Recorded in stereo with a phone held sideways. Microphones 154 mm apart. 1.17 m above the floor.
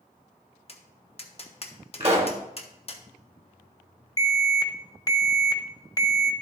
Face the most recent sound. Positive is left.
turn(degrees=25)  # may be behind; listen again after turning